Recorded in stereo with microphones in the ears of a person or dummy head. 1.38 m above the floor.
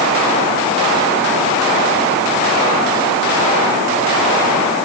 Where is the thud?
No thud in this recording.